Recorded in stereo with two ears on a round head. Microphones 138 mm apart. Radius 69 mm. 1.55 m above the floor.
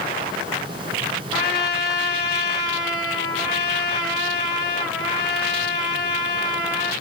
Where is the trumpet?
25° left (ahead or behind), 4.5 m.